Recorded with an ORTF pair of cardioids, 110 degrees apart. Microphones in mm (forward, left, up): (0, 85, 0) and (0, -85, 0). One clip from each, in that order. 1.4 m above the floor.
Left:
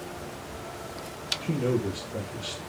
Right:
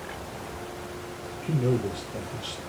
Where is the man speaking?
20° left, 1.4 m.